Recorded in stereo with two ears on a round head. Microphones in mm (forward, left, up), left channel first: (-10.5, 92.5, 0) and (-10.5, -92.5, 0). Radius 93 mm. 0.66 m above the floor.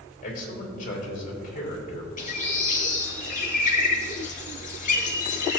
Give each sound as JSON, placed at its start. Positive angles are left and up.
{"t": 0.2, "sound": "a man speaking", "side_deg": 40, "distance_m": 3.5}
{"t": 2.2, "sound": "a bird", "side_deg": 40, "distance_m": 2.0}